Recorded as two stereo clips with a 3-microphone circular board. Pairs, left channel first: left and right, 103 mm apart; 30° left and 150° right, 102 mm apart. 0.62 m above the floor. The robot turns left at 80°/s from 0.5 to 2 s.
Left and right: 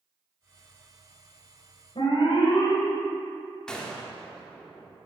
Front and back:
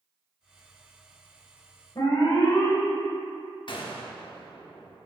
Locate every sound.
1.9 s an alarm: 75° left, 1.8 m; by 2.8 s 70° left, 1.8 m
3.7 s a gunshot: 10° left, 1.0 m